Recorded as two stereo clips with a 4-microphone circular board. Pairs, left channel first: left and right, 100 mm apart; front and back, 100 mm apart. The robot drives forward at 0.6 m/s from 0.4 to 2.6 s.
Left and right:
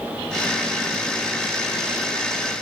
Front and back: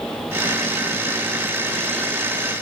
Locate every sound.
Only background noise.